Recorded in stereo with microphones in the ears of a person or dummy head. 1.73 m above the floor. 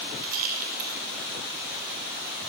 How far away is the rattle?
About 7.5 m.